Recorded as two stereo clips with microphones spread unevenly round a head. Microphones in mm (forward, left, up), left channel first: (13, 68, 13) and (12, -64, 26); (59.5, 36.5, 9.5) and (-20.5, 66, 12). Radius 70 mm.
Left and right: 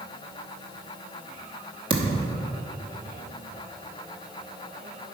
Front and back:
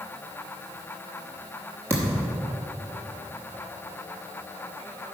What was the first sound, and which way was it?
A thud, 135° right.